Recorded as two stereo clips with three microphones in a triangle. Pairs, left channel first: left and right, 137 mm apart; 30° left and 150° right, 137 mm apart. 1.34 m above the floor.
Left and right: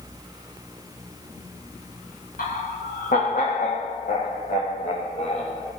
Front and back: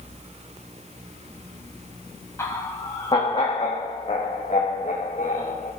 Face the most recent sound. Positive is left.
turn(degrees=55)